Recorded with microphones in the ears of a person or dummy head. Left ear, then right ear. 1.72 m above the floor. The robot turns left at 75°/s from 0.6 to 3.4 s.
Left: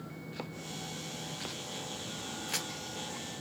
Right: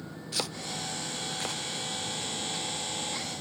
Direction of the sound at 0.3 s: 75° right (ahead or behind).